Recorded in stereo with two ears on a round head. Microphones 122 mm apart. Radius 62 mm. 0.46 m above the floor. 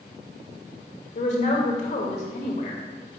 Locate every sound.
1.1 s a woman speaking: 55° left (ahead or behind), 1.5 m